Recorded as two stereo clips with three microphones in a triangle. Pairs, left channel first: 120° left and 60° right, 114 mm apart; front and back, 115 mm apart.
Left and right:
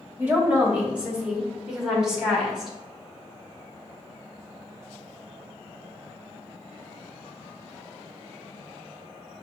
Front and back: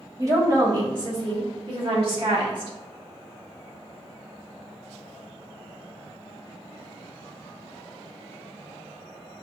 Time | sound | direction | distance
0.2 | a woman speaking | 130° right | 1.2 m